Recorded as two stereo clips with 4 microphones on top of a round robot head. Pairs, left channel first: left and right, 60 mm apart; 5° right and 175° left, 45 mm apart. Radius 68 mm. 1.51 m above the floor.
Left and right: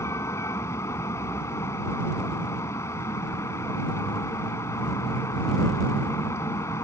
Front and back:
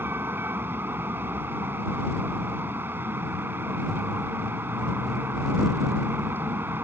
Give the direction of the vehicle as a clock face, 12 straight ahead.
8 o'clock.